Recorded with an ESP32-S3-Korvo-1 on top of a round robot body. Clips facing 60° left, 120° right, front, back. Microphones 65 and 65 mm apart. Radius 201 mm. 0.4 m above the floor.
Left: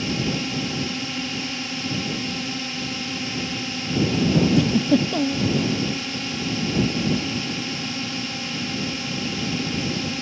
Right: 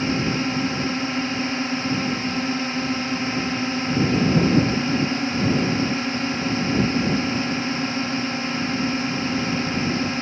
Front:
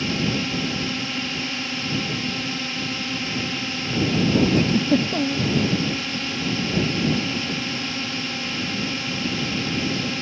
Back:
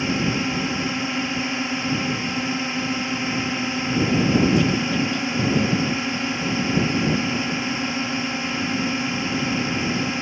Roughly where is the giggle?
Ahead left.